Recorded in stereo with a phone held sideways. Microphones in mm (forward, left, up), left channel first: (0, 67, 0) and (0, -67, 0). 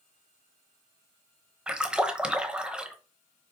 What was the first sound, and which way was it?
A splash, 5° right (ahead or behind).